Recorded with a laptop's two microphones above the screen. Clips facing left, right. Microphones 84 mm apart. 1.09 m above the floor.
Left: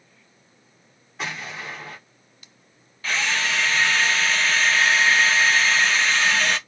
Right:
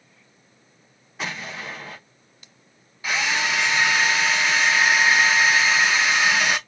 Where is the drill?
10° right (ahead or behind), 0.7 m.